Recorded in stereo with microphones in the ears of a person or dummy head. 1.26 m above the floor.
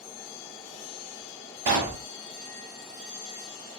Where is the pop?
35° right (ahead or behind), 1.3 m.